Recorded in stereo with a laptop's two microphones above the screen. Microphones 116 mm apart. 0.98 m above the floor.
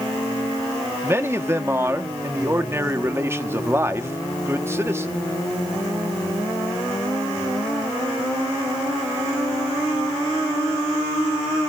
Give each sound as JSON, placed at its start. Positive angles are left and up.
{"t": 1.0, "sound": "a man speaking", "side_deg": -20, "distance_m": 1.6}